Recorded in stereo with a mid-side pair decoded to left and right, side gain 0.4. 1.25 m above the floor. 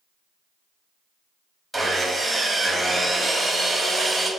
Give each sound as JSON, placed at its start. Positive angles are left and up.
{"t": 1.7, "sound": "sawing", "azimuth_deg": -20, "distance_m": 2.5}